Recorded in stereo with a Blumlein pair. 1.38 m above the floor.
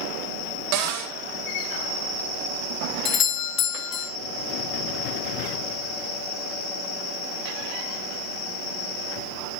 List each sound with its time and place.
0.7 s a cupboard door: 40° right, 1.7 m
3.0 s a doorbell: 30° left, 0.6 m